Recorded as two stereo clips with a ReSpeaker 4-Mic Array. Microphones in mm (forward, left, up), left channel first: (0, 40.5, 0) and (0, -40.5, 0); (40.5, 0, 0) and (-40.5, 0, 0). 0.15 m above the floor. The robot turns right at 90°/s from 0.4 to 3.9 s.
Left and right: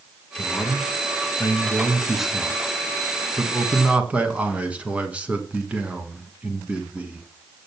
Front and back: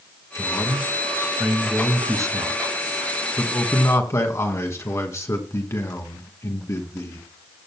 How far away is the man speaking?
About 1.3 m.